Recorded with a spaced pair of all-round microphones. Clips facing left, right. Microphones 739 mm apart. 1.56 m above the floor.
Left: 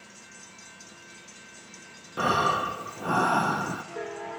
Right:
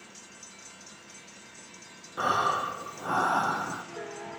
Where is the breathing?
60° left (ahead or behind), 0.6 m.